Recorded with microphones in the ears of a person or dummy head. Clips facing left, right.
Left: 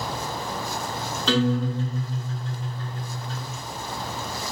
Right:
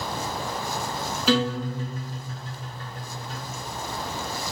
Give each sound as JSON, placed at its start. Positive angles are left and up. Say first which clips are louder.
{"t": 1.3, "sound": "a guitar", "louder": "left 1 dB", "side_deg": -15, "distance_m": 1.2}